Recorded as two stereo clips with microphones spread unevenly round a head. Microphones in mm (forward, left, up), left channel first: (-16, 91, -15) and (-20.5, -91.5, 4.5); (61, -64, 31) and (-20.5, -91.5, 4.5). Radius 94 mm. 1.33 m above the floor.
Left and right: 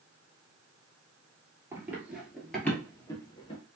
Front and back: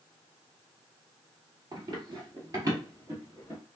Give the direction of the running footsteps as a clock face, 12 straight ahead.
4 o'clock.